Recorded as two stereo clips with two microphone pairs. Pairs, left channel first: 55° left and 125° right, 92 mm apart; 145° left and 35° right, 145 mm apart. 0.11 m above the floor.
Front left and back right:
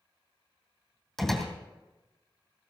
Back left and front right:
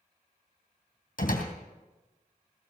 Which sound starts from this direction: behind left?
A door slam, at 1.2 s.